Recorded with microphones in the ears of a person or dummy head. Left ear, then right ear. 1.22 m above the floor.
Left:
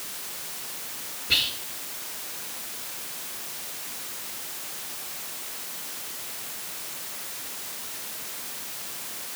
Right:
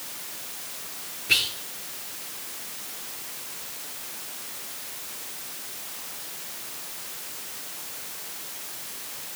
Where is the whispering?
70° right (ahead or behind), 1.0 m.